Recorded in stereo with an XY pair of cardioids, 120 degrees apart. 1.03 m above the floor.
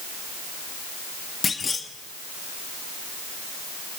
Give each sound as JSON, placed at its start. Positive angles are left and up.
{"t": 1.4, "sound": "a clunk", "azimuth_deg": 30, "distance_m": 1.7}